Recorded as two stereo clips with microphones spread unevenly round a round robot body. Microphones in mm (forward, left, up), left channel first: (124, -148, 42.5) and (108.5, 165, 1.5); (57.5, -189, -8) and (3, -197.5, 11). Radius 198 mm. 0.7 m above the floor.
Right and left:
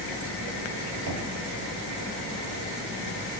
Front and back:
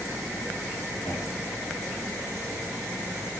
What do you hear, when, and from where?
1.1 s knocking: 65° left, 3.5 m